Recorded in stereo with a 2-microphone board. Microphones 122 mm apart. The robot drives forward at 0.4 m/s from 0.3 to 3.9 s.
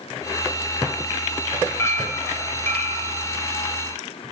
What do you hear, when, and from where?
1.8 s a clink: 25° left (ahead or behind), 0.8 m; by 3.1 s 15° left (ahead or behind), 1.1 m